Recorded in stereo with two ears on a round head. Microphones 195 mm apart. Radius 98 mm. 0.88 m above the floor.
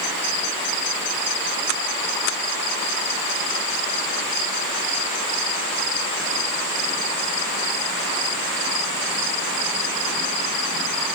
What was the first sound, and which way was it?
Only background noise.